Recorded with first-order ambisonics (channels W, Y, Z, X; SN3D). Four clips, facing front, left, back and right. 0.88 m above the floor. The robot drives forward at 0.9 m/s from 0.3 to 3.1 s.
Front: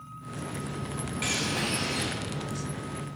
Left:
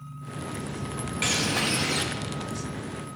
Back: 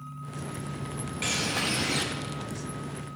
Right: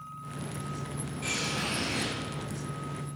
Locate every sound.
1.2 s a bird: 90° left, 1.3 m; by 2.0 s 125° left, 1.5 m